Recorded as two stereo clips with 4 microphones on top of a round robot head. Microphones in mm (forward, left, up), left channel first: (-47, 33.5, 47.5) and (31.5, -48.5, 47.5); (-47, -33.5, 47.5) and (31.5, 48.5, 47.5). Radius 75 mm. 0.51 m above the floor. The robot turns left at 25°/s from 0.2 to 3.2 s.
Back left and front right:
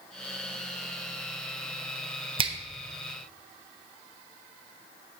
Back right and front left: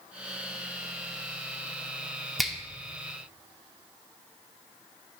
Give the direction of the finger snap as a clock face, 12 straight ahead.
1 o'clock.